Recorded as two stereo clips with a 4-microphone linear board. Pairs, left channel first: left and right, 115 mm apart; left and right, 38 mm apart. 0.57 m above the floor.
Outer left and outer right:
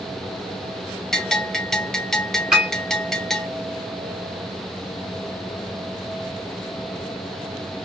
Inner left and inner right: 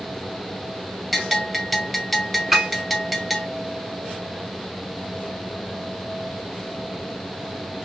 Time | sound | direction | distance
1.1 | a bell | 5° left (ahead or behind) | 0.7 m
2.5 | a piano | 5° right (ahead or behind) | 1.2 m